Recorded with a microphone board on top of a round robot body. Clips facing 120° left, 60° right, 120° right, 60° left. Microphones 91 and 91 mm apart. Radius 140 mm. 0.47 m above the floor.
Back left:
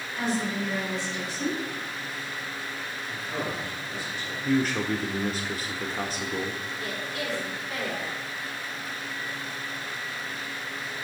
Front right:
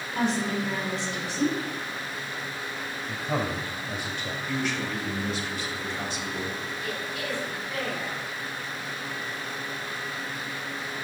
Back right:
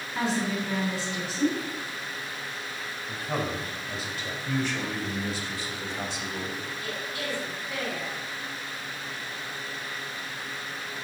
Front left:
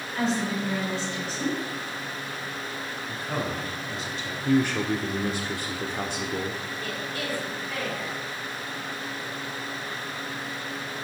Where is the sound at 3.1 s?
35° right, 4.5 m.